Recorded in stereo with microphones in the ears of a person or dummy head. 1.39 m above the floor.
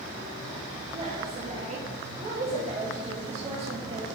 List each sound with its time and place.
0.9 s a woman speaking: 35° right (ahead or behind), 1.5 m